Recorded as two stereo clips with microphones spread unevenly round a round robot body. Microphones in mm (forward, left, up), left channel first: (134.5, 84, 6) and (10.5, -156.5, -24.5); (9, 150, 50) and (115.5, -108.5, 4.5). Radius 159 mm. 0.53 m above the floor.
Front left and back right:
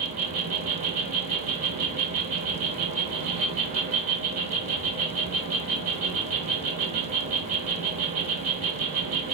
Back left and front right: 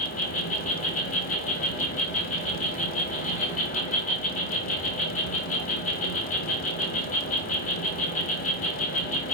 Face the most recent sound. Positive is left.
turn(degrees=180)